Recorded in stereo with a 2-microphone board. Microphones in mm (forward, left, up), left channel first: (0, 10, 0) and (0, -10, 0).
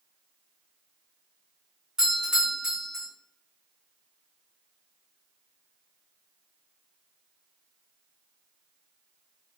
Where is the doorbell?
20° right (ahead or behind), 1.1 m.